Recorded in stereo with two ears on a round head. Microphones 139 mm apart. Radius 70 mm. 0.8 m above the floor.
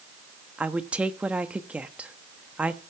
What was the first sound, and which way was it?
A woman speaking, 10° right (ahead or behind).